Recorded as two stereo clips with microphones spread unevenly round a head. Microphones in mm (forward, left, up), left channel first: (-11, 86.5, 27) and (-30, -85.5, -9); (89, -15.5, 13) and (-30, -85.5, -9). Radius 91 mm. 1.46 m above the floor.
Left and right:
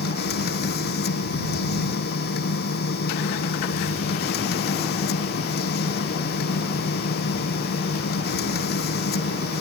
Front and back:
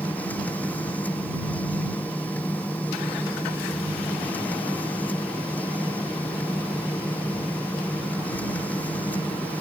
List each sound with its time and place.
0.0 s a machine running: 110° left